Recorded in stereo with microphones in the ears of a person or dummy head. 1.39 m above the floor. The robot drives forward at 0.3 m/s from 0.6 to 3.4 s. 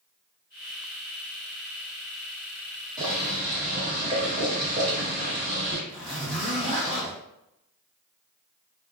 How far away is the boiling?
About 1.4 m.